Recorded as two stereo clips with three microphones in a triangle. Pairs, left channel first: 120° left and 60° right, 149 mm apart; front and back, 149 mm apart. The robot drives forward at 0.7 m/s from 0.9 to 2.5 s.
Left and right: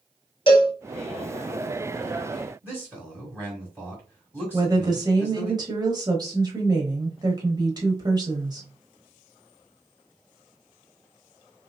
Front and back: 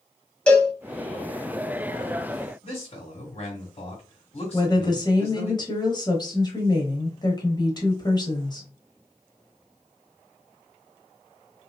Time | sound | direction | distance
0.5 | a cowbell | 80° left | 0.9 m
2.6 | a man speaking | 10° left | 1.4 m
4.5 | a woman speaking | 30° right | 1.1 m